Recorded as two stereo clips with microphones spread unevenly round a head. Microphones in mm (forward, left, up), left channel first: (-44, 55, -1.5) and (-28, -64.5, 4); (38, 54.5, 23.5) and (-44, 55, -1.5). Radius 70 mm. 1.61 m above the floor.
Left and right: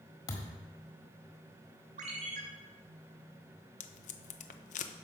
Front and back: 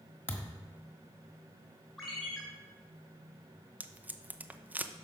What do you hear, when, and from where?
0.3 s a thud: 40° left, 1.5 m
2.0 s a ringtone: 85° right, 2.5 m
3.8 s tape being pulled: 100° left, 0.8 m